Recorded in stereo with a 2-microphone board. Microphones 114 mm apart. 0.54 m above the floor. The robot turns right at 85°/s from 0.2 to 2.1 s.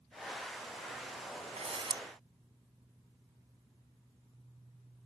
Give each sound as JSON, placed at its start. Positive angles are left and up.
{"t": 1.6, "sound": "a camera shutter", "azimuth_deg": -75}